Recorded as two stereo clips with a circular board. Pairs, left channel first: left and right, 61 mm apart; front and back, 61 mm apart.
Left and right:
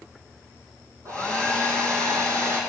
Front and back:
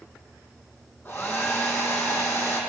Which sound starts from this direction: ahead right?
A hair dryer, at 1.1 s.